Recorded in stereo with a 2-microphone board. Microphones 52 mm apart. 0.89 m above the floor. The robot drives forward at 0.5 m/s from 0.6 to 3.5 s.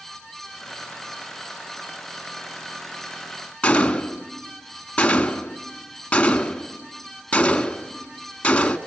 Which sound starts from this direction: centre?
A gunshot, at 3.6 s.